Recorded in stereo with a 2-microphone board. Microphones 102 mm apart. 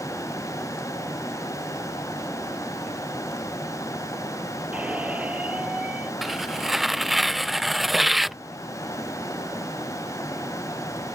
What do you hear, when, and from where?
4.7 s a squeak: 15° right (ahead or behind)
6.2 s tearing paper: centre (ahead or behind)